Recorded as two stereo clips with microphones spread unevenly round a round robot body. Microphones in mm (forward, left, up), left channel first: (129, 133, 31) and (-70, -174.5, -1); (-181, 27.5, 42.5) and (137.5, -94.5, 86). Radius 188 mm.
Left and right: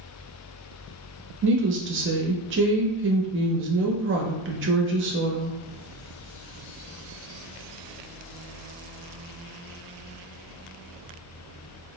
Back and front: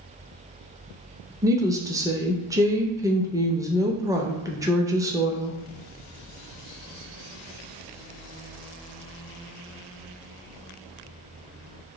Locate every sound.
1.4 s a woman speaking: 105° right, 0.5 m